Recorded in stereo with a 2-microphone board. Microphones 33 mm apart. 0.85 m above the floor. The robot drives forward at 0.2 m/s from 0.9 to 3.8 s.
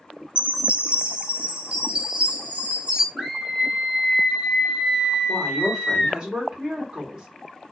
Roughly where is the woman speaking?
Right.